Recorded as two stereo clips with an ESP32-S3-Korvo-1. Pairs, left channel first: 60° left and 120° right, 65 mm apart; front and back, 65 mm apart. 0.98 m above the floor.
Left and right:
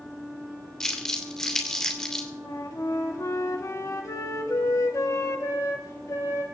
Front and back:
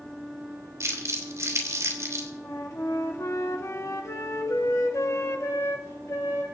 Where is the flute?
35° left, 1.6 m.